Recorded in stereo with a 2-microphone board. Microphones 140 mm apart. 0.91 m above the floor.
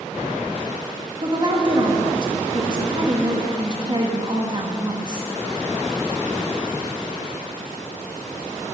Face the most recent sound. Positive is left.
turn(degrees=-35)  # may be behind; listen again after turning